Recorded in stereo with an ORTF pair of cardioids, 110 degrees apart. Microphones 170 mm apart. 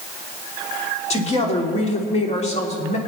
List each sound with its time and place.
1.1 s a woman speaking: 40° left, 3 m